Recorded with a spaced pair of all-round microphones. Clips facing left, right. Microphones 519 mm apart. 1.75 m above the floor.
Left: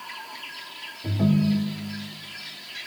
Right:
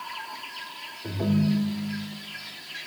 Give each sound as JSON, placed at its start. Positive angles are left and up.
{"t": 1.0, "sound": "a ringtone", "side_deg": 65, "distance_m": 2.0}